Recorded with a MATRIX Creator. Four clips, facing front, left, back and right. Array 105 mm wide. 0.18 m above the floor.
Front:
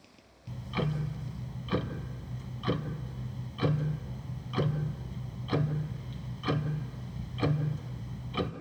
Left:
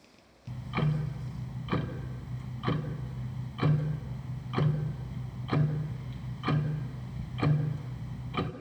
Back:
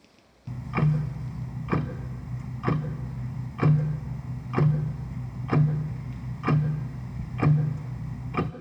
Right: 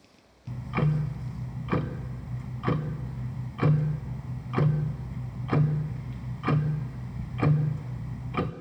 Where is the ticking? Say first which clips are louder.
Right 3 dB, back 6 dB; 155° right, 1.0 m.